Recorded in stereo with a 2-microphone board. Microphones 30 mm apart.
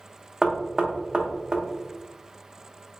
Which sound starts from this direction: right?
Knocking, at 0.4 s.